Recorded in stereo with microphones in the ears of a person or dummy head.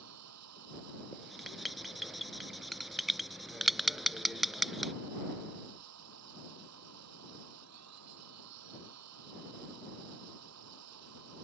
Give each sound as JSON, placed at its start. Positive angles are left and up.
{"t": 0.0, "sound": "a machine running", "side_deg": -90}
{"t": 1.1, "sound": "writing", "side_deg": 0}